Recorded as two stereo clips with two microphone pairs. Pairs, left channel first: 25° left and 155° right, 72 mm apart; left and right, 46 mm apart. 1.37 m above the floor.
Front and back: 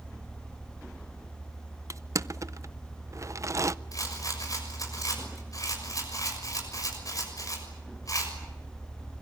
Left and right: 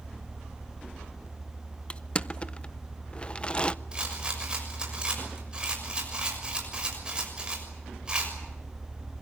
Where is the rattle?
15° right, 6.5 m.